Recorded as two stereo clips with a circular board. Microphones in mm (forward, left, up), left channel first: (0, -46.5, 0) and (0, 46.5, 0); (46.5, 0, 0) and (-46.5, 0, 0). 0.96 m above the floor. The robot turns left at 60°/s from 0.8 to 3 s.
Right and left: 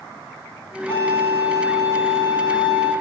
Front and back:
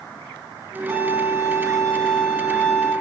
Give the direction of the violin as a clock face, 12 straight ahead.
1 o'clock.